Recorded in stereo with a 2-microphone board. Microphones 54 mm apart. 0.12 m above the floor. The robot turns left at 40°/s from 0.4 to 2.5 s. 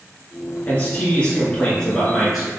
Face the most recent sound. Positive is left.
turn(degrees=-10)